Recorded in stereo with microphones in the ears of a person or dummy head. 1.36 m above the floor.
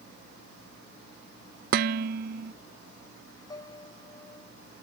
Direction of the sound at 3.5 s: 25° left (ahead or behind).